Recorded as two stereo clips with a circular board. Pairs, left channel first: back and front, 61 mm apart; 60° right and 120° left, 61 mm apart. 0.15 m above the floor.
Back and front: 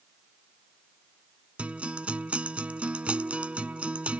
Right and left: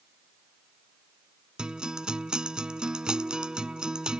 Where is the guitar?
55° left.